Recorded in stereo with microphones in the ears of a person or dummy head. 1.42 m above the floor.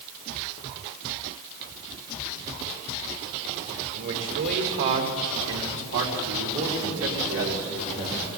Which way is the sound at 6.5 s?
50° right (ahead or behind).